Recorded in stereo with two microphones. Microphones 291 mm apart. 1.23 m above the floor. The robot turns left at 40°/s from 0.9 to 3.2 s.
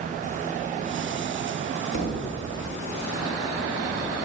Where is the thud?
50° left (ahead or behind), 3 m; by 2.4 s 65° left (ahead or behind), 3 m.